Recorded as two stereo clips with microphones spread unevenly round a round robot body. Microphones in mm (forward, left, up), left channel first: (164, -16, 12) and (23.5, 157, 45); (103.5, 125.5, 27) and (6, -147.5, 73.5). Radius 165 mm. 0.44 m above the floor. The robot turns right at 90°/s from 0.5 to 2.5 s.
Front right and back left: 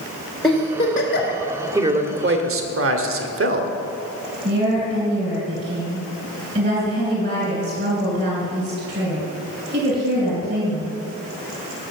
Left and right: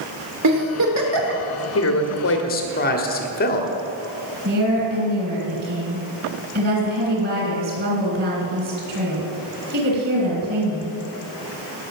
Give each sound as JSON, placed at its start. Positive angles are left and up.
{"t": 0.4, "sound": "a giggle", "azimuth_deg": -130, "distance_m": 2.0}
{"t": 1.8, "sound": "a man speaking", "azimuth_deg": 50, "distance_m": 1.6}
{"t": 4.5, "sound": "a woman speaking", "azimuth_deg": -165, "distance_m": 3.0}